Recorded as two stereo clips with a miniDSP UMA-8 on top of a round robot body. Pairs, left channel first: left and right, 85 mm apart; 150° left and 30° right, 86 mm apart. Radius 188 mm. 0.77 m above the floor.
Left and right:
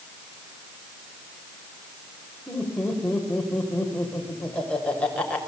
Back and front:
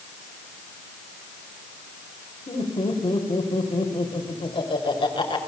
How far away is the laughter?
About 5.5 m.